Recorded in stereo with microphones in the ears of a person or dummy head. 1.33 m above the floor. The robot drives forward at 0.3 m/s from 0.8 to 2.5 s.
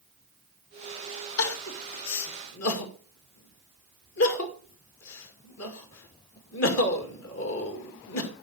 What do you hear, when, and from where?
1.4 s crying: 85° left, 2 m; by 8.3 s 75° left (ahead or behind), 2 m